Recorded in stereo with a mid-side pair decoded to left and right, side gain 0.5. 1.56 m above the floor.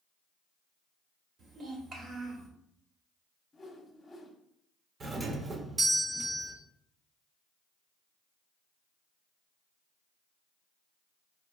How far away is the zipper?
No zipper in this recording.